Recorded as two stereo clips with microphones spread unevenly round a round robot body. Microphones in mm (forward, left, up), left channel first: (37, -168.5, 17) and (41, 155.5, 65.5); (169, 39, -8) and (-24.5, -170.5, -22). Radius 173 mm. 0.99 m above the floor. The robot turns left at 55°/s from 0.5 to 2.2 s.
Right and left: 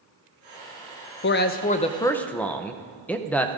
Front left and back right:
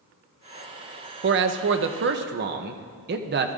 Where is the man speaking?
110° right, 0.6 m; by 3.6 s 165° right, 0.6 m.